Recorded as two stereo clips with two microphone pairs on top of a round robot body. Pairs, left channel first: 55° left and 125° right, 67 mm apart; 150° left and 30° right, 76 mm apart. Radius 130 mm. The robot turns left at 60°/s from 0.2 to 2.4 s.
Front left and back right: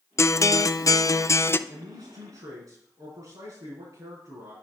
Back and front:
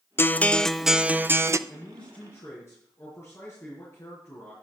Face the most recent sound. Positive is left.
turn(degrees=-155)